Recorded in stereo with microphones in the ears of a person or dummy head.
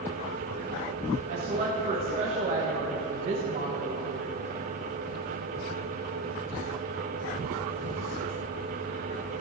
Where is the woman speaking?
35° right (ahead or behind), 1.1 m.